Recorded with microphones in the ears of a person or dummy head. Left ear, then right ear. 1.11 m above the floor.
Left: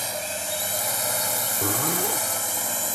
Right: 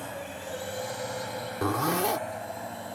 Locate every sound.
0.0 s a drone: 70° left (ahead or behind)
1.6 s a zipper: 20° right (ahead or behind)